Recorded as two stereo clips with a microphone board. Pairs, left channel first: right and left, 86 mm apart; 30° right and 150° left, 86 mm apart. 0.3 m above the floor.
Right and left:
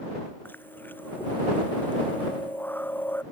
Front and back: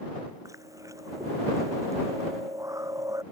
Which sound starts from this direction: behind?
Chewing, at 0.5 s.